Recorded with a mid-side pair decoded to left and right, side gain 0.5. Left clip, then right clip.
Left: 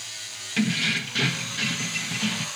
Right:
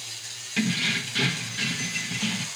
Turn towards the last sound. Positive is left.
turn(degrees=10)